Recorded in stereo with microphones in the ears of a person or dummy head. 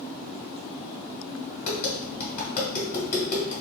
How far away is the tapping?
About 1.8 m.